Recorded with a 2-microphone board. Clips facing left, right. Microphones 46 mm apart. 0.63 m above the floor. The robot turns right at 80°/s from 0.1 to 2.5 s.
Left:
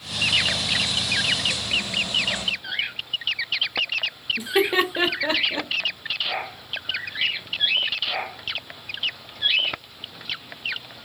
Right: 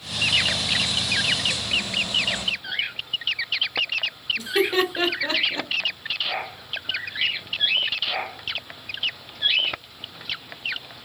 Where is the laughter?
20° left (ahead or behind), 0.6 m.